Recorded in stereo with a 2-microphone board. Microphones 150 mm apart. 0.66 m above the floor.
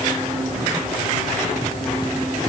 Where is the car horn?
No car horn in this recording.